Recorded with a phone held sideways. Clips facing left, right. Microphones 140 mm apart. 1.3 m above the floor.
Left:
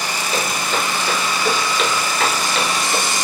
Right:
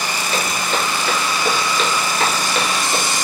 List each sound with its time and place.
0.3 s footsteps: 10° left (ahead or behind), 1.5 m; by 3.0 s 10° right (ahead or behind), 1.5 m